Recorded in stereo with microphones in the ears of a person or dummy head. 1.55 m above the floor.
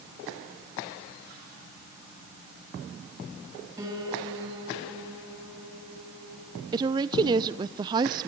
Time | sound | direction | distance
3.8 | a piano | 20° right (ahead or behind) | 7.5 m
6.7 | a woman speaking | 25° right (ahead or behind) | 0.6 m